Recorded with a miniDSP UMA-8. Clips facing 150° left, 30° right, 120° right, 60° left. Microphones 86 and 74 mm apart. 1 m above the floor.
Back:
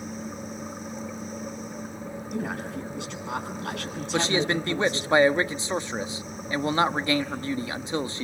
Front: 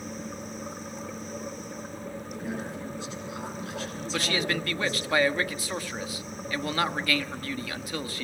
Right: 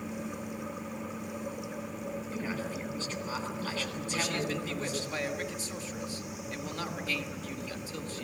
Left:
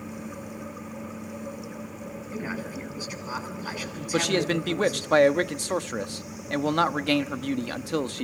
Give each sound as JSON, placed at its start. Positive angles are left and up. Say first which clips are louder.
{"t": 2.3, "sound": "a man speaking", "louder": "back 5 dB, left 5 dB", "azimuth_deg": 135, "distance_m": 10.0}
{"t": 4.1, "sound": "a man speaking", "louder": "back 5 dB, left 9 dB", "azimuth_deg": 85, "distance_m": 1.2}